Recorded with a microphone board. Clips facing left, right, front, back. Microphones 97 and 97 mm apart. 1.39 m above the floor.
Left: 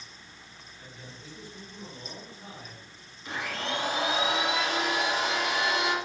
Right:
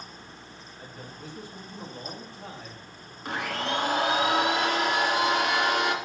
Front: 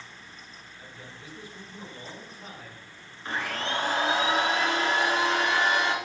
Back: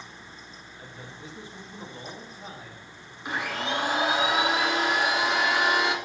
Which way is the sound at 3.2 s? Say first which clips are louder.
Right 3 dB, back 1 dB; 105° right.